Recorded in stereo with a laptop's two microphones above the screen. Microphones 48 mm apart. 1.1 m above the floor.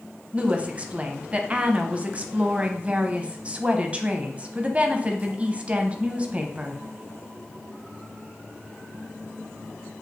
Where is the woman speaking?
25° right (ahead or behind), 0.7 m.